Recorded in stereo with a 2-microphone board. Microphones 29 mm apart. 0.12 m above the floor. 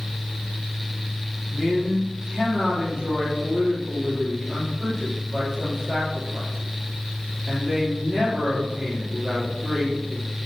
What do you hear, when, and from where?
1.5 s a man speaking: 10° left (ahead or behind), 3.5 m